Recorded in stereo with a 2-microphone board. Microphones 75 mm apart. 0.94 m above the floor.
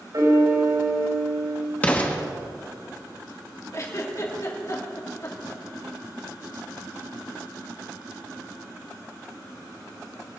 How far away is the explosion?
About 1.7 m.